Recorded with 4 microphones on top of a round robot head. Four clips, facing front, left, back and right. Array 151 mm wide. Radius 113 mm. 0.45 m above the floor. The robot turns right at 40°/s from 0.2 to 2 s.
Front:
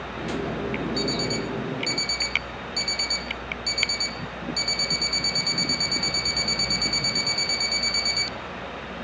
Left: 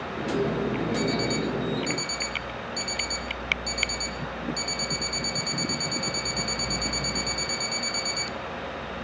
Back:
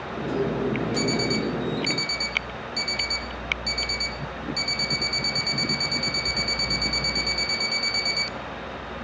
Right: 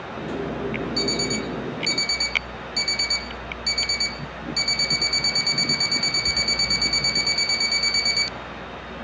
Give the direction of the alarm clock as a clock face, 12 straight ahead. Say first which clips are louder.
Even, back 2 dB; 4 o'clock.